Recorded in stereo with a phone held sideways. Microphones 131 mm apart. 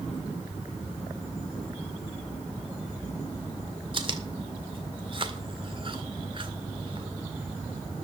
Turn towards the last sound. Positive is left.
turn(degrees=-40)  # may be behind; listen again after turning